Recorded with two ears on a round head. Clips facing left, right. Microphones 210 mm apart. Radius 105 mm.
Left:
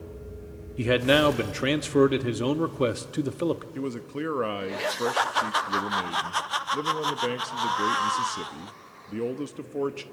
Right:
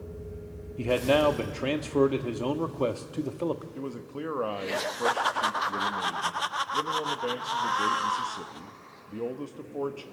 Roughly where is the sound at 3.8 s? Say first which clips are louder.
Left 4 dB; left.